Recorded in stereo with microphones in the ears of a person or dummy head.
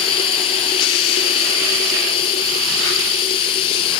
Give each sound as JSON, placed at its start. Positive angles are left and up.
{"t": 0.0, "sound": "running water", "side_deg": 25}